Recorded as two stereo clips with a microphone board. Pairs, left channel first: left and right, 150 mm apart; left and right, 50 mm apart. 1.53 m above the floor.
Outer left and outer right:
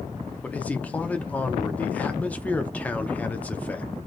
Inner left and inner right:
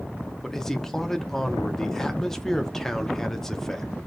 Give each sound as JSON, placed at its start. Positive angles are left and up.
{"t": 0.4, "sound": "a man speaking", "side_deg": 10, "distance_m": 0.8}